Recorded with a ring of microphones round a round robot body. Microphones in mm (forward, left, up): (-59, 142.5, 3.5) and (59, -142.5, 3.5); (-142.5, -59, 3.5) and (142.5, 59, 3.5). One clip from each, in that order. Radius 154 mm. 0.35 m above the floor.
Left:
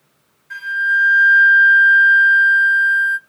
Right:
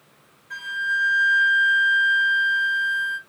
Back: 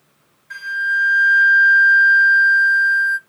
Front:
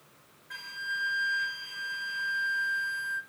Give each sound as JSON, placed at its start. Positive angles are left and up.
{"t": 0.5, "sound": "a flute", "azimuth_deg": 170, "distance_m": 1.8}